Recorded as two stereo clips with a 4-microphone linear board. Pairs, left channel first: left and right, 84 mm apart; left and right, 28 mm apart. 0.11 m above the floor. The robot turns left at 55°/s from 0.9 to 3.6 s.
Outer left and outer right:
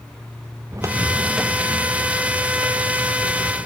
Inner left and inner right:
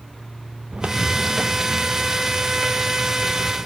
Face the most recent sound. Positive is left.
turn(degrees=60)  # may be behind; listen again after turning